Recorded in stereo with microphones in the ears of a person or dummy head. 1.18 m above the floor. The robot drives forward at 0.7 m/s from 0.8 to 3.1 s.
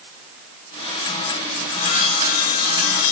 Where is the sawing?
40° left (ahead or behind), 4 m; by 3.1 s 55° left (ahead or behind), 3.5 m.